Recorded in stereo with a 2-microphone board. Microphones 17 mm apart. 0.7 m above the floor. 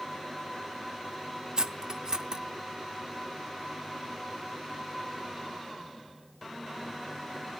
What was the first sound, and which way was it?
Cutlery clinking, 45° right (ahead or behind).